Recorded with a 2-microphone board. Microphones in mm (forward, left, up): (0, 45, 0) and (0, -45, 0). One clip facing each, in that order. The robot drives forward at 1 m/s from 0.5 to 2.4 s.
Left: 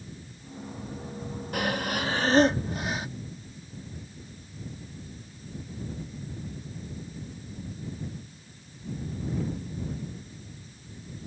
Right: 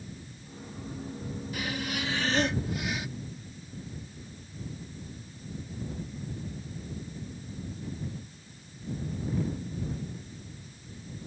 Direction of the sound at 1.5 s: 65° left (ahead or behind).